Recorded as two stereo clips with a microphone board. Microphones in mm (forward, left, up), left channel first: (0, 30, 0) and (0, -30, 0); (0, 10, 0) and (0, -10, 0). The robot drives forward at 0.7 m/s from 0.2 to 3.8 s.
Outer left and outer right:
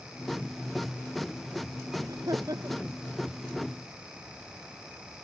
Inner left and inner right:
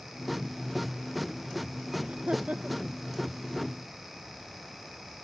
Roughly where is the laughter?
Right.